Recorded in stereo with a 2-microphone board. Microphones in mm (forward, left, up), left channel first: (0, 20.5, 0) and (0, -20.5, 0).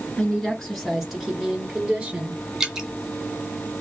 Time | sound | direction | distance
0.2 | a woman speaking | 15° left (ahead or behind) | 1.2 m
2.6 | dripping | 15° right (ahead or behind) | 0.8 m